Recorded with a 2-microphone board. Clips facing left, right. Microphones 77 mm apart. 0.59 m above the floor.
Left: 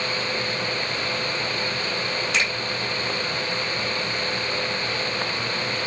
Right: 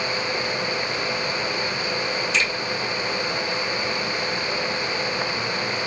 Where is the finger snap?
65° left (ahead or behind), 1.6 m.